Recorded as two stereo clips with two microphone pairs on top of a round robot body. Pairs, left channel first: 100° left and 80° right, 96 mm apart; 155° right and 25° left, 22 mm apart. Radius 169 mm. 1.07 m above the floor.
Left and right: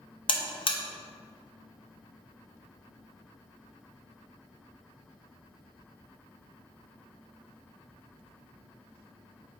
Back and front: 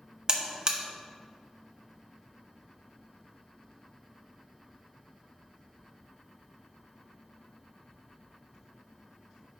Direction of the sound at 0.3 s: 75° left.